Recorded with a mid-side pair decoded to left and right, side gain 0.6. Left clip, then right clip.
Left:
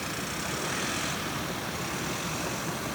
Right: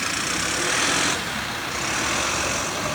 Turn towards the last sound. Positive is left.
No sound to turn to.